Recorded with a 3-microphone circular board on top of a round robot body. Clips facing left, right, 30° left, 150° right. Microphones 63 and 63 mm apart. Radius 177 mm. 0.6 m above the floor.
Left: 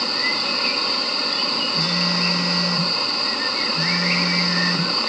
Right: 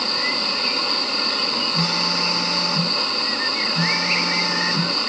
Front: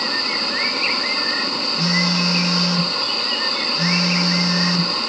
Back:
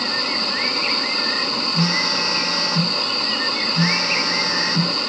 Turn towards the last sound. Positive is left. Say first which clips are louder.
# even, front 2 dB
turn(degrees=-105)